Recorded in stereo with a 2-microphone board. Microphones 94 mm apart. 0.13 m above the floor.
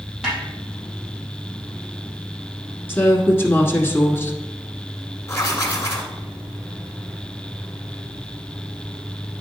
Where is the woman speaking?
25° left (ahead or behind), 1.3 m.